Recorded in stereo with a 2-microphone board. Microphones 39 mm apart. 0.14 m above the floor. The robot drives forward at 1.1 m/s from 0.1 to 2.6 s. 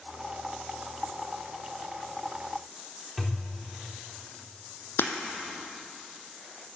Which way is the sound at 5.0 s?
65° left (ahead or behind).